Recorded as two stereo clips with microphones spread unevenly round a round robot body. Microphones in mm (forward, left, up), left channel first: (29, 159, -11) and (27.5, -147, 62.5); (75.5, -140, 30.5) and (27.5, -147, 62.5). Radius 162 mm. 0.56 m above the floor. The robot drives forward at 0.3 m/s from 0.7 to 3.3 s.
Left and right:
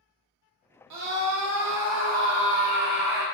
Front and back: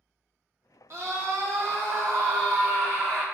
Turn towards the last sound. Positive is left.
turn(degrees=-150)